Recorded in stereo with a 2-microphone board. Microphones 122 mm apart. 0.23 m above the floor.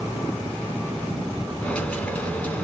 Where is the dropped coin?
10° left (ahead or behind), 1.0 m.